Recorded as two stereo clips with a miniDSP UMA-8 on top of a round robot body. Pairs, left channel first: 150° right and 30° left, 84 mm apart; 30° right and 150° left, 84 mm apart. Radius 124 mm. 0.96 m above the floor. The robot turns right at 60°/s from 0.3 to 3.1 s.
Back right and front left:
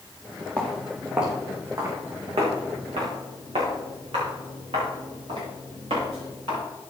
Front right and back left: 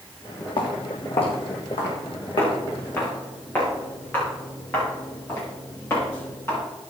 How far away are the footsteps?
About 2.5 m.